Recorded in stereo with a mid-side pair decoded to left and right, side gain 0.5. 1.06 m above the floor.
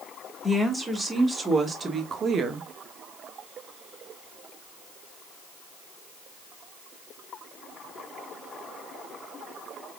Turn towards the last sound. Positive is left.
turn(degrees=-60)